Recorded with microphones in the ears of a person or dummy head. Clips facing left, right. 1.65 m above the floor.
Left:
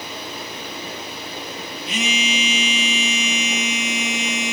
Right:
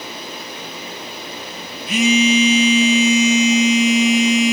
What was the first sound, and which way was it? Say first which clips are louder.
A phone buzzing: right 11 dB; 40° right (ahead or behind).